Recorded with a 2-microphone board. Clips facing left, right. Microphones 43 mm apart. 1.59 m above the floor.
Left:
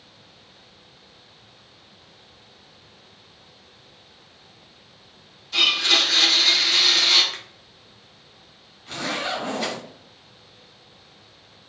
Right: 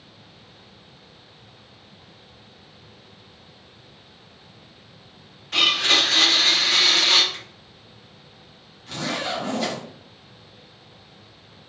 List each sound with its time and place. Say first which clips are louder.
5.5 s a blender: right 1 dB; 50° right (ahead or behind), 0.8 m
7.3 s a finger snap: left 1 dB; 75° left (ahead or behind), 0.6 m
8.9 s a zipper: even; 10° left (ahead or behind), 1.4 m